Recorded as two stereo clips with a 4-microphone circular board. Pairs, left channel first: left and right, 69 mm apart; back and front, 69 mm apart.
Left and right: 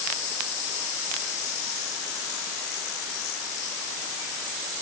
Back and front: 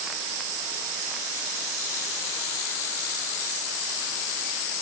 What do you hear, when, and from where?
Only background noise.